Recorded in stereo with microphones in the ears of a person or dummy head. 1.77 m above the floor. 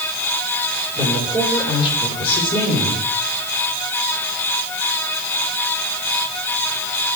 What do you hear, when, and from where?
0.9 s a woman speaking: 30° left (ahead or behind), 7 m